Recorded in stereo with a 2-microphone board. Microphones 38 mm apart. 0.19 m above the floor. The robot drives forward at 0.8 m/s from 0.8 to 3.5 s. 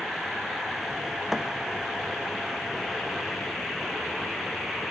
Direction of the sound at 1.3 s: 10° right (ahead or behind).